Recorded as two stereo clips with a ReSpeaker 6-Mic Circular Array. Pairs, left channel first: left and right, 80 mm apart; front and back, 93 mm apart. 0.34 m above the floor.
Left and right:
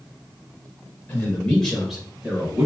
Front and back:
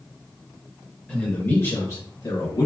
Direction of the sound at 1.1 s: 65° left.